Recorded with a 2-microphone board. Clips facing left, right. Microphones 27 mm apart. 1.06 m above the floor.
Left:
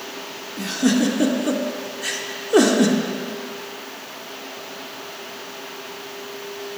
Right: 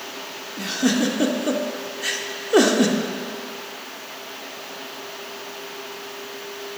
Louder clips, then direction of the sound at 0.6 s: Left 2 dB; 10° right (ahead or behind).